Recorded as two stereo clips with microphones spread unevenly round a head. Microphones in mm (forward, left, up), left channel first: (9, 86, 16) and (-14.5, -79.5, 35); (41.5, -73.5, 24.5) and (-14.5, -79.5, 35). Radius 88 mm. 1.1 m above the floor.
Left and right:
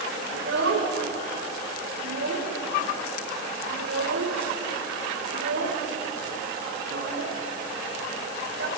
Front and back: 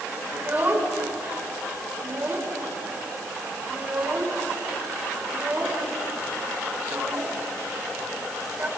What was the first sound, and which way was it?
A child speaking, 120° right.